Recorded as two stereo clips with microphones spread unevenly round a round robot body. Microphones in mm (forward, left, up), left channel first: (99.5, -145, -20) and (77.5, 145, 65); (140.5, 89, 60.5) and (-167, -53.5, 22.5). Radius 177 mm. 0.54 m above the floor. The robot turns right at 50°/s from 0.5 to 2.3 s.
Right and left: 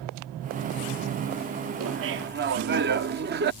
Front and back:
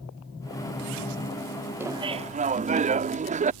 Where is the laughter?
130° left; by 3.5 s 155° left.